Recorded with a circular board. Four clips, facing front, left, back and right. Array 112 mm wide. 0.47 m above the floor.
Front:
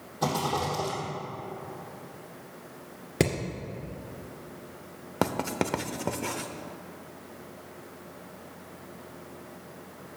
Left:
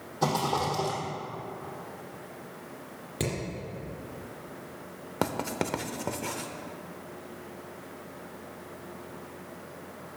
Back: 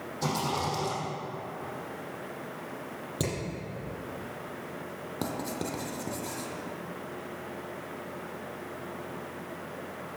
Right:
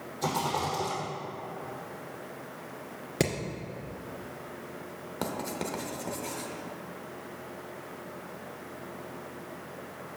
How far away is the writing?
About 0.6 m.